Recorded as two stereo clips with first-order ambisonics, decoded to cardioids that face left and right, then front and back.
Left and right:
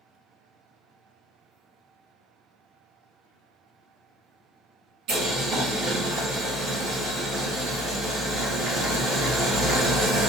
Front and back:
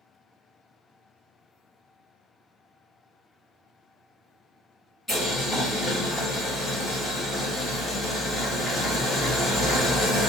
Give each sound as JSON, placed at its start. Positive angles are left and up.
{"t": 5.1, "sound": "boiling", "azimuth_deg": -85, "distance_m": 1.5}